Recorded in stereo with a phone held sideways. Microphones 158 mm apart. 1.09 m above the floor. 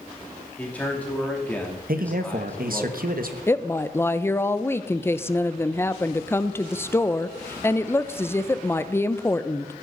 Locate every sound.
0.6 s a man speaking: 10° left (ahead or behind), 3 m
1.9 s a man speaking: 65° right (ahead or behind), 1.1 m
3.5 s a woman speaking: 15° left (ahead or behind), 0.6 m